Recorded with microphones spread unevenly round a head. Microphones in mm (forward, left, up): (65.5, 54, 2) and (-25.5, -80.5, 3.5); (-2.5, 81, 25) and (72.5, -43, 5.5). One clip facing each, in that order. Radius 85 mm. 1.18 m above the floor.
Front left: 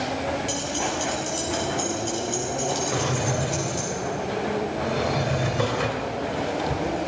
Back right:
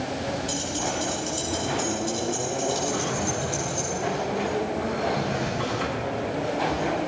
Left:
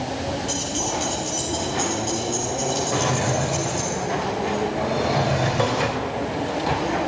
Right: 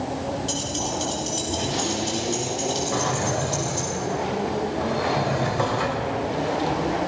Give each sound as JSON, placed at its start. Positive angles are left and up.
{"t": 0.5, "sound": "keys jangling", "azimuth_deg": -5, "distance_m": 9.5}
{"t": 2.9, "sound": "a drawer", "azimuth_deg": 55, "distance_m": 2.5}